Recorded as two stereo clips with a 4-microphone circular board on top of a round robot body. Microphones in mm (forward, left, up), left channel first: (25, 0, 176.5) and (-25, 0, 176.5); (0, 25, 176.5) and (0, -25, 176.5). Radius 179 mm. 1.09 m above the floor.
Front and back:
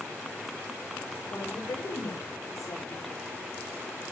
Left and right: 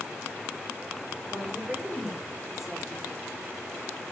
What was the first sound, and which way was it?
A woman speaking, 10° right.